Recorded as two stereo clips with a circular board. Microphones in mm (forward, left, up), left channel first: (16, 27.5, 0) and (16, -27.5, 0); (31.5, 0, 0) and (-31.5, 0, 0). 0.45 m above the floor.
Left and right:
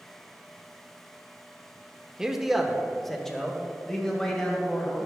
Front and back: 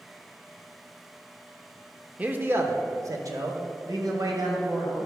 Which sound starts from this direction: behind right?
A man speaking, at 2.2 s.